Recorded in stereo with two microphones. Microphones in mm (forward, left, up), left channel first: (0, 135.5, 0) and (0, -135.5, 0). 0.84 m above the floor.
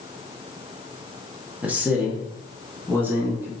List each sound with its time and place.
1.6 s a man speaking: 5° right (ahead or behind), 1.1 m; by 3.5 s 10° right (ahead or behind), 2 m